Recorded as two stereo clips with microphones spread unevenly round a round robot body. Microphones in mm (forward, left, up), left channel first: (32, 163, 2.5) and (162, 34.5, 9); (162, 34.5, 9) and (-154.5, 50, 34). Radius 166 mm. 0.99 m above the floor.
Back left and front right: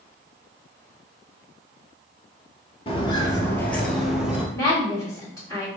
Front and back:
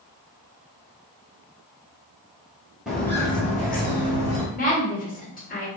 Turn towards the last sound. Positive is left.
turn(degrees=60)